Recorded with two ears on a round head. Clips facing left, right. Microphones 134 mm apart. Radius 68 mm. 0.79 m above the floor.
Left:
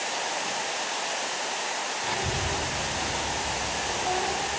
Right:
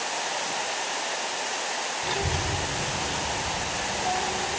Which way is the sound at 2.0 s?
50° right (ahead or behind).